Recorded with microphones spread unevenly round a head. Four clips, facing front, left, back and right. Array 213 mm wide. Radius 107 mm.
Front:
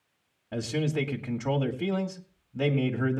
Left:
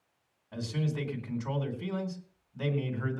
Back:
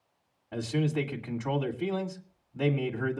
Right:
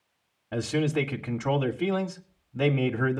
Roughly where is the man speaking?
Ahead right.